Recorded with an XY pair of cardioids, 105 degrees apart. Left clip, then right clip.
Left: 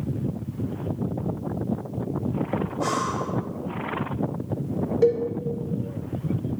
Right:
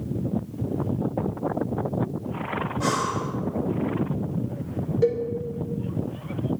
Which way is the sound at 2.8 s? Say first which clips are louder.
Even; 25° right.